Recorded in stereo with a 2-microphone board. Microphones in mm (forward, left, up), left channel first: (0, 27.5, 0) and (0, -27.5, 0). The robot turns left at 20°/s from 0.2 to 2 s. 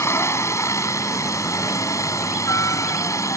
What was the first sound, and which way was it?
A helicopter, 120° left.